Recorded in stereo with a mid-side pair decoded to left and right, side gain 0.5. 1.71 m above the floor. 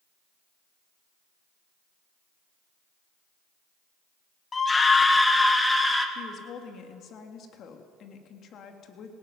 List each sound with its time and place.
4.5 s a scream: 30° left, 1.5 m; by 6.0 s 10° left, 3.5 m
6.2 s a woman speaking: 60° left, 3.5 m